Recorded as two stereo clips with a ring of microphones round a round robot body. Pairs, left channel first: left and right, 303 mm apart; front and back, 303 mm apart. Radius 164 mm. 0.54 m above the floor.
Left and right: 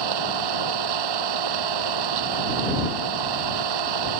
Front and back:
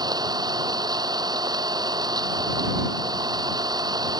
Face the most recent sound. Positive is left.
turn(degrees=-105)